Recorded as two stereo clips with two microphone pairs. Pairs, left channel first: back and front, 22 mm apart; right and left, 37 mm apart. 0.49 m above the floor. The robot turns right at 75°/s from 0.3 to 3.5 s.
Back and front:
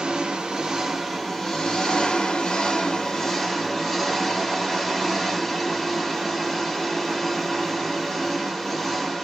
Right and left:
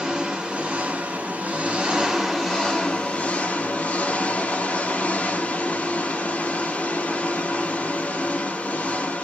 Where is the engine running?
25° left, 0.8 m; by 9.2 s 95° right, 0.8 m.